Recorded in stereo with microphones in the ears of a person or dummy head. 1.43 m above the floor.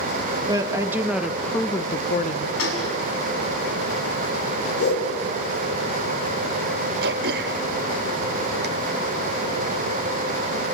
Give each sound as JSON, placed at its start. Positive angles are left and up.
{"t": 0.5, "sound": "a woman speaking", "side_deg": -20, "distance_m": 1.9}
{"t": 2.6, "sound": "a gunshot", "side_deg": 80, "distance_m": 6.0}
{"t": 4.8, "sound": "a whoosh", "side_deg": 65, "distance_m": 3.5}
{"t": 7.0, "sound": "throat clearing", "side_deg": -60, "distance_m": 1.4}